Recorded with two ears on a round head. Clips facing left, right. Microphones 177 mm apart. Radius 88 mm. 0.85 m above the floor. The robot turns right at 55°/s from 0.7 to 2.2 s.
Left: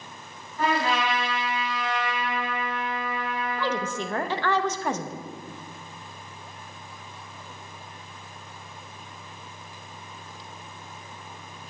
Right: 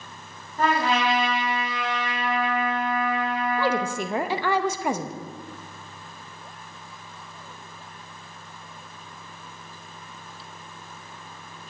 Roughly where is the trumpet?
Behind right.